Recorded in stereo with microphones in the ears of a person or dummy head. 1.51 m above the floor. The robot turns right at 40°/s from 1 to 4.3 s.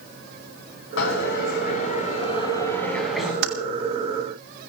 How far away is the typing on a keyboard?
About 1.3 m.